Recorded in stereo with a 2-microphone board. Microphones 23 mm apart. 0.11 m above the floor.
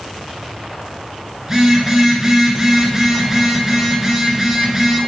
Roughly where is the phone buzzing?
Centre.